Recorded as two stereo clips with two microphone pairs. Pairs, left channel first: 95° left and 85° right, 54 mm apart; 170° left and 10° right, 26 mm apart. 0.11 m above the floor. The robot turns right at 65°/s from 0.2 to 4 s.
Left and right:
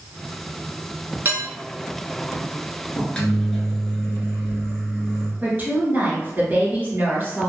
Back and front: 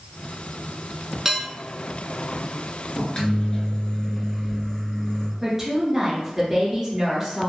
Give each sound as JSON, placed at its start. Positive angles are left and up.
{"t": 1.2, "sound": "dishes clattering", "azimuth_deg": -70, "distance_m": 1.0}
{"t": 3.0, "sound": "a microwave", "azimuth_deg": 140, "distance_m": 1.0}
{"t": 5.4, "sound": "a woman speaking", "azimuth_deg": -65, "distance_m": 1.6}